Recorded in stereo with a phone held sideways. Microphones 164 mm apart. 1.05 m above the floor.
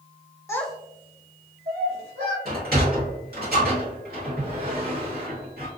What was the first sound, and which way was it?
A child speaking, 15° left (ahead or behind).